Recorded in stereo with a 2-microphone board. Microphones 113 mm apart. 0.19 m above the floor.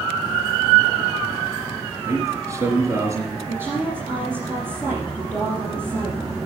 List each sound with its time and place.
2.0 s a man speaking: 25° right (ahead or behind), 3.5 m
3.5 s a woman speaking: 20° right (ahead or behind), 5 m